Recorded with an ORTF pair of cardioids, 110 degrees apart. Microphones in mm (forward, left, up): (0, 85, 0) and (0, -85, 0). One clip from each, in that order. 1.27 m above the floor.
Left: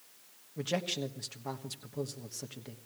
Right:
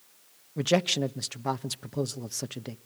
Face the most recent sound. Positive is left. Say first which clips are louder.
# right 9 dB
turn(degrees=-45)